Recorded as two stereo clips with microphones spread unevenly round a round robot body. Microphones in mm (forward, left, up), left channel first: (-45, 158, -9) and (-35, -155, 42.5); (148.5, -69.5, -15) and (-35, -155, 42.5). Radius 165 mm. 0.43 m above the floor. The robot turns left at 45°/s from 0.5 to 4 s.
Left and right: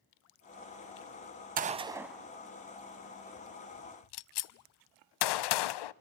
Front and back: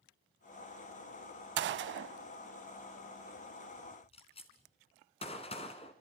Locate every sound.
1.6 s a gunshot: 145° right, 0.5 m; by 5.9 s 105° left, 0.5 m